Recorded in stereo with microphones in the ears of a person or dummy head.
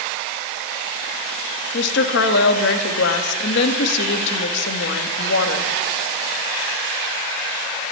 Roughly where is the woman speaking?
Left.